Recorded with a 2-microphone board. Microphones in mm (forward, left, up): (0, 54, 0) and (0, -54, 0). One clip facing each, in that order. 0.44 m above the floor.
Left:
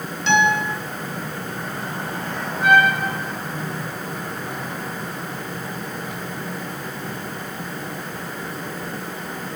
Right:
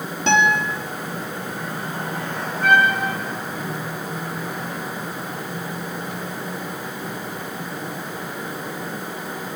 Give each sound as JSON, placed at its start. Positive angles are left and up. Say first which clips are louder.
{"t": 0.3, "sound": "a guitar", "louder": "even", "side_deg": -45, "distance_m": 4.5}
{"t": 2.6, "sound": "a trumpet", "louder": "left 1 dB", "side_deg": 10, "distance_m": 8.0}